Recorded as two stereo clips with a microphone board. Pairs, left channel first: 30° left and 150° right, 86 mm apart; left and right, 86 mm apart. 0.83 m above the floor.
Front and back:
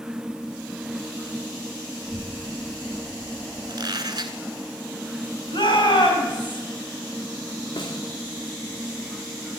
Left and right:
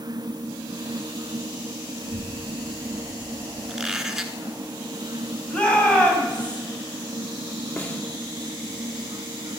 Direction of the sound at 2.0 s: 65° left.